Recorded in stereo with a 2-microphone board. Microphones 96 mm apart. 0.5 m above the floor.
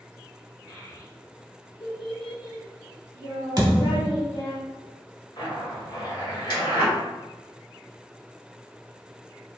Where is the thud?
45° right (ahead or behind), 1.0 m.